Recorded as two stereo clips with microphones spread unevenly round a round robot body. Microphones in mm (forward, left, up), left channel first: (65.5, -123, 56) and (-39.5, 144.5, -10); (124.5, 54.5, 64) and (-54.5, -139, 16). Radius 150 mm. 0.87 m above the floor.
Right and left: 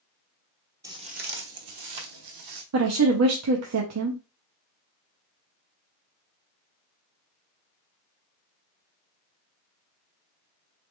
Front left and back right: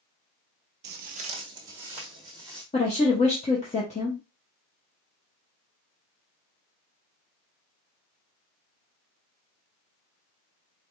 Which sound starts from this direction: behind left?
A woman speaking, at 2.7 s.